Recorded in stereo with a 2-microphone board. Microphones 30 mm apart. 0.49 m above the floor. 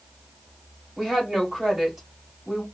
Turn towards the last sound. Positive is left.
turn(degrees=-15)  # may be behind; listen again after turning